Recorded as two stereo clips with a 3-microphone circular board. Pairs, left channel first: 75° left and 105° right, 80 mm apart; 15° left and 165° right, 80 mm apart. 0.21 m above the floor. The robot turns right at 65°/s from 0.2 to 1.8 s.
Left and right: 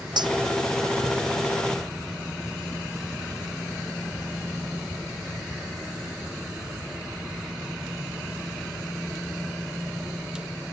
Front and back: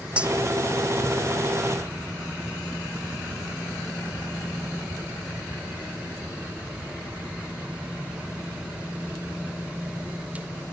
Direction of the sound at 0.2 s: 90° right.